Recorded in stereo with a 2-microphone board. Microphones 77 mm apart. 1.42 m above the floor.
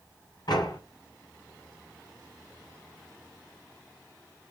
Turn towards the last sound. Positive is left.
turn(degrees=65)  # may be behind; listen again after turning